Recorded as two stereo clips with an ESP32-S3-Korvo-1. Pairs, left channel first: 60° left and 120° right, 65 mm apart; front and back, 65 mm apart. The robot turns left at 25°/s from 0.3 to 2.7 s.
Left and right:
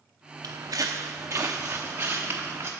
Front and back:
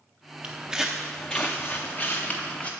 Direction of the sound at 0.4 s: 110° right.